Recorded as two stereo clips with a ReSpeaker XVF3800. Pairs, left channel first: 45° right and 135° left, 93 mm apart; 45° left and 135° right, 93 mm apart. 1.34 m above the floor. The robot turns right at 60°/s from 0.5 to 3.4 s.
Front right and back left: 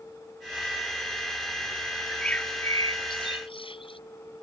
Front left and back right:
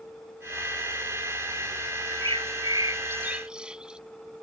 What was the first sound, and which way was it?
A bird, 145° right.